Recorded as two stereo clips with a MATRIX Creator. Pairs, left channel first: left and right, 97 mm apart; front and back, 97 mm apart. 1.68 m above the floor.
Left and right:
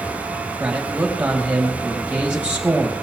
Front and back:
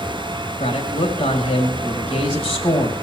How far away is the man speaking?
About 3 m.